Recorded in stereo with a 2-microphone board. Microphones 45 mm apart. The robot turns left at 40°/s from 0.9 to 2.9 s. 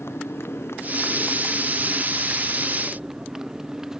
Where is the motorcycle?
70° left; by 4.0 s 10° right.